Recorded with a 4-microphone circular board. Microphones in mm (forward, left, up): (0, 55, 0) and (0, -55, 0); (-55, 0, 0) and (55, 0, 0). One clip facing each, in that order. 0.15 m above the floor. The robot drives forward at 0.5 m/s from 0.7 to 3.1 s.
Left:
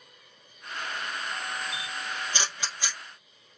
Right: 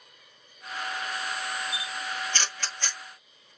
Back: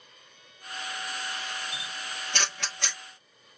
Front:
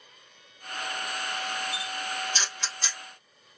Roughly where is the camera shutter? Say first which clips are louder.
Right 1 dB, front 5 dB; behind.